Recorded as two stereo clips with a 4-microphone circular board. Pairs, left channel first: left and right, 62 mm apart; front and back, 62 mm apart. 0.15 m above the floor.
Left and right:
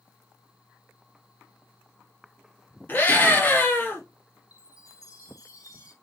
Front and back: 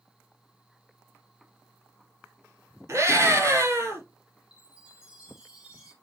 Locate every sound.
2.9 s a scream: 145° left, 3.5 m
4.5 s a chime: 105° left, 3.5 m